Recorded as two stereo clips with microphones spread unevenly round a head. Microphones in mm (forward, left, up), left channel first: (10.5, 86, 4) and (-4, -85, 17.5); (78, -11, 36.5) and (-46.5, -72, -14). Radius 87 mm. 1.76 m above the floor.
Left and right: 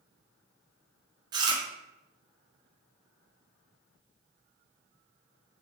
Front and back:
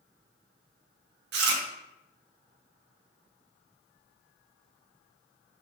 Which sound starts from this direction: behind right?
Chewing, at 1.3 s.